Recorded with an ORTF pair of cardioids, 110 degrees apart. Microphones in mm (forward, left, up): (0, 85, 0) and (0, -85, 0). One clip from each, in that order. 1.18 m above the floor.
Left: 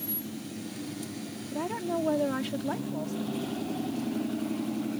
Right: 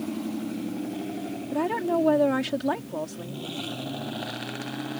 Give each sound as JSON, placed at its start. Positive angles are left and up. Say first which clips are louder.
{"t": 1.5, "sound": "a woman speaking", "louder": "right 6 dB", "azimuth_deg": -40}